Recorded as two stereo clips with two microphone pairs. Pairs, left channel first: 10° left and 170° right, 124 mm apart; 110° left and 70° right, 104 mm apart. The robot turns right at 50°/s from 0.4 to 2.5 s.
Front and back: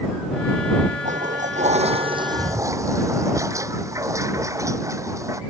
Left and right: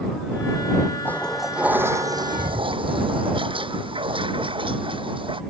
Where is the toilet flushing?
Straight behind; by 5.4 s 105° right.